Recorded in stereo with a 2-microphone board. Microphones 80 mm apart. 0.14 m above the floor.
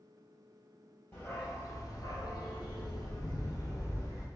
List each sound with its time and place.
1.1 s a dog barking: 30° left (ahead or behind), 1.0 m; by 4.3 s 35° left (ahead or behind), 1.4 m